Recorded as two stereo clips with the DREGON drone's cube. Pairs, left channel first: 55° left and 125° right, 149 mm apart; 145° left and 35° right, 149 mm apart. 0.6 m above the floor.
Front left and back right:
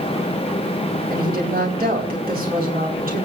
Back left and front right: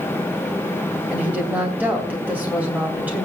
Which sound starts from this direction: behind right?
A woman speaking, at 1.1 s.